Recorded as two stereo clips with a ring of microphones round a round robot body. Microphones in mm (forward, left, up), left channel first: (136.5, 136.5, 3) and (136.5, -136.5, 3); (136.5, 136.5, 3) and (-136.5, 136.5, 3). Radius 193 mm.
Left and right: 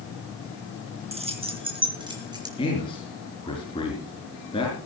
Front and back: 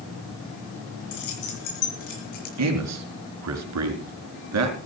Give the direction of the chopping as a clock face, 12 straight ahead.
I don't hear chopping.